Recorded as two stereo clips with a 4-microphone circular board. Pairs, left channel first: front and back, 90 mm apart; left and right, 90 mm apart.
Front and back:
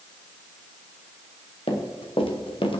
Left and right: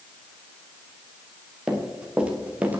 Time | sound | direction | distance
1.7 | running footsteps | 10° right | 3 m